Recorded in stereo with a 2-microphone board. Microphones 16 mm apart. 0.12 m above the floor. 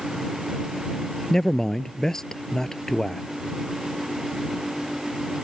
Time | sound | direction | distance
1.3 | a man speaking | 40° left (ahead or behind) | ?